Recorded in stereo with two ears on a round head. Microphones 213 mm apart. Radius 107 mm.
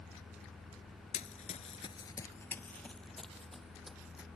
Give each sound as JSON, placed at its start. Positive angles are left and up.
{"t": 1.1, "sound": "running footsteps", "side_deg": 30}